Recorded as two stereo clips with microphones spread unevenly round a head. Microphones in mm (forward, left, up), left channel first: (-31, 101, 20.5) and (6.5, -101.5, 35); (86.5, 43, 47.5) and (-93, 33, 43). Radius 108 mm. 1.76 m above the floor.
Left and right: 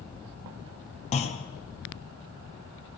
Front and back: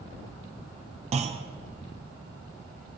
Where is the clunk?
150° left, 0.7 m.